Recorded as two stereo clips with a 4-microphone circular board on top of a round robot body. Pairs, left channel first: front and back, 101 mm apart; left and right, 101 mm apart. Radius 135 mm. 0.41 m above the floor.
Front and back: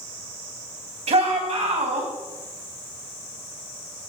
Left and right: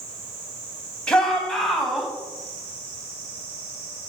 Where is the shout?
170° left, 3.5 m; by 2.1 s straight behind, 4 m.